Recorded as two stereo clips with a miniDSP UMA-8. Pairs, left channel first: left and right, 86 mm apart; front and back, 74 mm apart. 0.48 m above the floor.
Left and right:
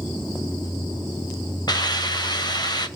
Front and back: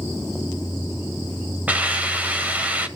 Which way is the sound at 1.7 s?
115° left.